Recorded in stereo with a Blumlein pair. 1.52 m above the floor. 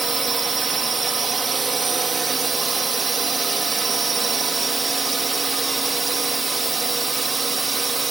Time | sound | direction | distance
0.0 | a drone | 15° right | ?